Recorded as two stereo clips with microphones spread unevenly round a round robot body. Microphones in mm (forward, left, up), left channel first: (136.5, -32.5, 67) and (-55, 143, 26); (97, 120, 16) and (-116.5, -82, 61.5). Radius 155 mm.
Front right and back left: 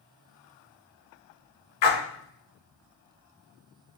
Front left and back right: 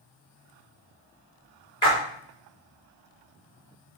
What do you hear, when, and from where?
1.8 s a splash: 35° right, 2.0 m